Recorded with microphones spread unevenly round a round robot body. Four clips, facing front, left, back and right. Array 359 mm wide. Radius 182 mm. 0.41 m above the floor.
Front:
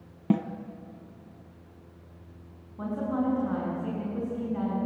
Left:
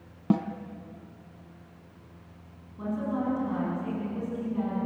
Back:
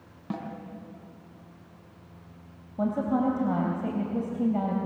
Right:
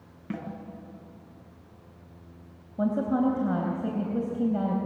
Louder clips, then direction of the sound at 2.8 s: Right 5 dB, back 3 dB; 130° right.